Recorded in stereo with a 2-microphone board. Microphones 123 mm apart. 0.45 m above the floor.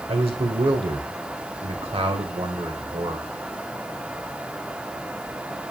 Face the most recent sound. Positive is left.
turn(degrees=-55)  # may be behind; listen again after turning